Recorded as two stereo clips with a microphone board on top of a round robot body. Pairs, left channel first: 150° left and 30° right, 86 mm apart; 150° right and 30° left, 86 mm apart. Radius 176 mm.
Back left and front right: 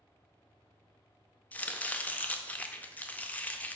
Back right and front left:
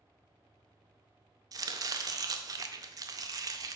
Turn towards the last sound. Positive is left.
turn(degrees=75)